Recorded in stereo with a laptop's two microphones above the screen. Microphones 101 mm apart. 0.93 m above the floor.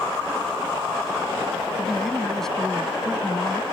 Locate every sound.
1.8 s a man speaking: 5° left (ahead or behind)